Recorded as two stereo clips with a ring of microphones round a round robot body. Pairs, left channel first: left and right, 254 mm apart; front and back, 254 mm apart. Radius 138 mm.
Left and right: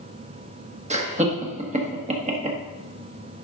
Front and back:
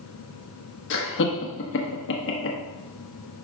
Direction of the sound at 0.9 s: 30° right.